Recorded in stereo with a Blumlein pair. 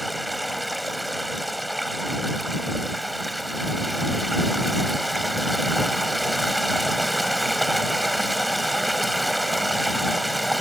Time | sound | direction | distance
0.0 | running water | straight ahead | ?